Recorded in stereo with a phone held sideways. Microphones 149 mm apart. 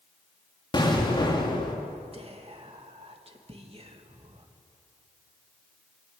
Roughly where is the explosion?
Left.